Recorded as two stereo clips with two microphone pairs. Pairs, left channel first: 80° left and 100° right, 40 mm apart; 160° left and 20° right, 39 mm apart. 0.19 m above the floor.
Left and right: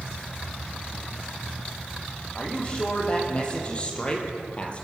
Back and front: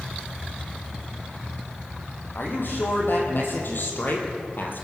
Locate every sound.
2.4 s a man speaking: 140° left, 6.5 m; by 4.8 s 135° left, 4 m